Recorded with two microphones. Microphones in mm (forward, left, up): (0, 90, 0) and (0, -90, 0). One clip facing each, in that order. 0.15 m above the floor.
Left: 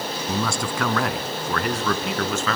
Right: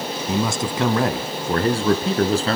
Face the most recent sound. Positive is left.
turn(degrees=-35)  # may be behind; listen again after turning